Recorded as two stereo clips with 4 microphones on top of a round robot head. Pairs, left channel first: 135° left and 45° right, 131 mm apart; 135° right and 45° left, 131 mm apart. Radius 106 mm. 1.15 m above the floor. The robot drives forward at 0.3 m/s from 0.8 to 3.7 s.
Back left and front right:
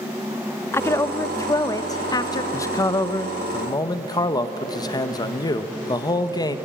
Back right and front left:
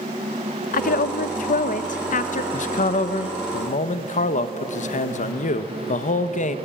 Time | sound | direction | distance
0.7 | a woman speaking | 150° right | 0.8 m
2.5 | a man speaking | 155° right | 1.0 m